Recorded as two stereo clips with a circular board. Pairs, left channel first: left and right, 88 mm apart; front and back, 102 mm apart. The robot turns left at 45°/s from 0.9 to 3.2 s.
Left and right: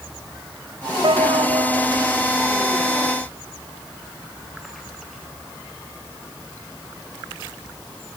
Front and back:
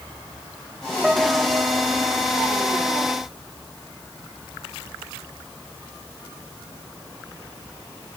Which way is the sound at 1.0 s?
95° right.